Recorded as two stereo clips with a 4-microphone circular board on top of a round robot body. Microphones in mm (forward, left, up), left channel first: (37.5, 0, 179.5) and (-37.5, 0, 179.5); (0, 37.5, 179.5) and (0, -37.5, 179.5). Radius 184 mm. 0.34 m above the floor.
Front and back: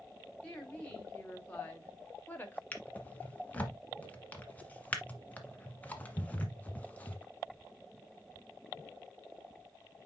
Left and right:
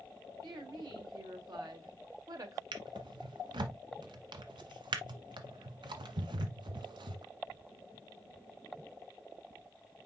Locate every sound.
0.4 s a woman speaking: 70° right, 4 m; by 2.6 s 60° right, 2 m
2.7 s a drawer: 70° right, 1.3 m